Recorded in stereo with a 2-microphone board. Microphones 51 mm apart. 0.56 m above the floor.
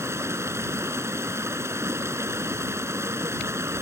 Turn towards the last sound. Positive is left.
turn(degrees=-60)  # may be behind; listen again after turning